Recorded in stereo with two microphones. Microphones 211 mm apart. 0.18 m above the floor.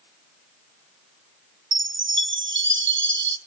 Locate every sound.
1.7 s a chime: 65° right (ahead or behind), 0.6 m